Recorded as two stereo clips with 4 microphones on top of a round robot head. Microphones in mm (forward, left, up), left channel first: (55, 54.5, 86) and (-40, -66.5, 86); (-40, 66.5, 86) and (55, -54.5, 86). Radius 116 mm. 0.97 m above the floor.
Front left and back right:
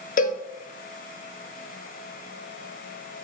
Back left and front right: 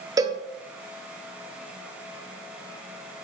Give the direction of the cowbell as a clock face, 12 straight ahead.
11 o'clock.